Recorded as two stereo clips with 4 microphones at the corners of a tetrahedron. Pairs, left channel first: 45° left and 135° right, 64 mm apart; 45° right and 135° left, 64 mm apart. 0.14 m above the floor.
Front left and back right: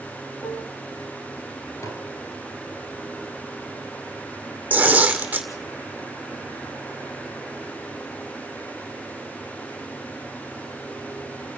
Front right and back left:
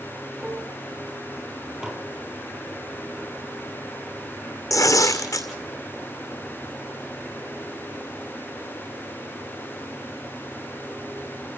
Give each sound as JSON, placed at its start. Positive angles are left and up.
{"t": 0.4, "sound": "dishes clattering", "azimuth_deg": 45, "distance_m": 3.0}
{"t": 1.8, "sound": "dishes clattering", "azimuth_deg": 55, "distance_m": 2.0}
{"t": 4.7, "sound": "tearing paper", "azimuth_deg": -70, "distance_m": 2.0}